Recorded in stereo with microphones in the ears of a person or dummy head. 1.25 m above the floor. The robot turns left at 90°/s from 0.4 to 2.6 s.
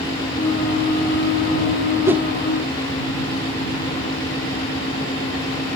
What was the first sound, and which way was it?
A whoosh, 15° right (ahead or behind).